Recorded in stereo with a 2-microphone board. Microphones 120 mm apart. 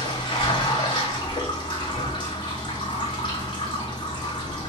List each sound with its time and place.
0.0 s running water: 40° left (ahead or behind), 1.1 m